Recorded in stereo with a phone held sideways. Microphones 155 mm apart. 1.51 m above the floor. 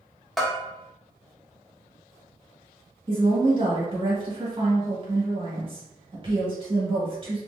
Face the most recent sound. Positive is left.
turn(degrees=-35)  # may be behind; listen again after turning